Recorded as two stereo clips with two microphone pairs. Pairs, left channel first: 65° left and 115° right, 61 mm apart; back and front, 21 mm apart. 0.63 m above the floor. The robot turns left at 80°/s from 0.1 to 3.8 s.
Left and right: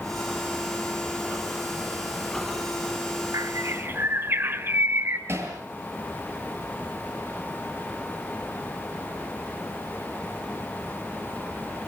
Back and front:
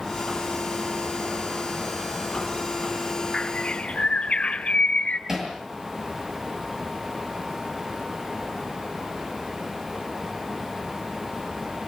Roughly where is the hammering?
Ahead right.